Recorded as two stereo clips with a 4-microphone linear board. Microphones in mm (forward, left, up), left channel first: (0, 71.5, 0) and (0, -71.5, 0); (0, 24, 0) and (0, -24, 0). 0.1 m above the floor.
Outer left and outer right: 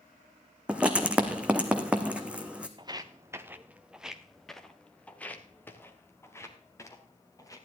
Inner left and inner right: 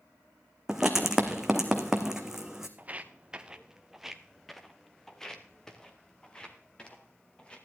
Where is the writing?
10° right (ahead or behind), 1.4 m.